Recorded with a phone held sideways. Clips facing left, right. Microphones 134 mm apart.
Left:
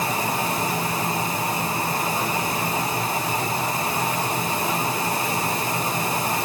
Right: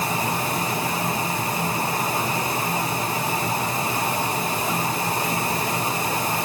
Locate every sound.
Only background noise.